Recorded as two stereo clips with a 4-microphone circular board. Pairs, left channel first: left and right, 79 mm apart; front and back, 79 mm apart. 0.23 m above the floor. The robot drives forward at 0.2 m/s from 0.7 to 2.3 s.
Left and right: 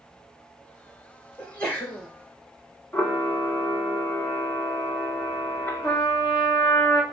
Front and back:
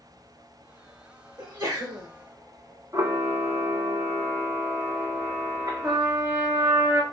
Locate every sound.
1.4 s a sneeze: 155° left, 3 m; by 2.1 s 160° left, 3 m
2.9 s a camera shutter: 145° left, 1.1 m
5.8 s a trumpet: 140° left, 1.1 m